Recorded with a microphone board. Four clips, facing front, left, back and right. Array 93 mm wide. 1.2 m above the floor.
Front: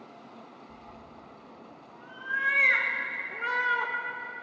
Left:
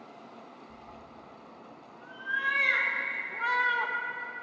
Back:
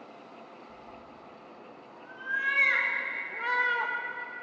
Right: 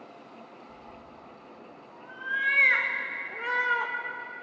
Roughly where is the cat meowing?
Ahead right.